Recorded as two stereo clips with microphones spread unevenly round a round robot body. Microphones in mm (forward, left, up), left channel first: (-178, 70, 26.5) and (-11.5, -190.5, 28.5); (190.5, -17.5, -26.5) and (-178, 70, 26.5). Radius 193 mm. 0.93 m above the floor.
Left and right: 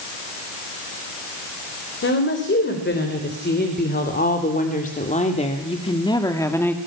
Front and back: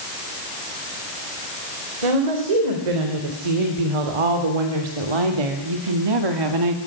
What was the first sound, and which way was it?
A woman speaking, 175° left.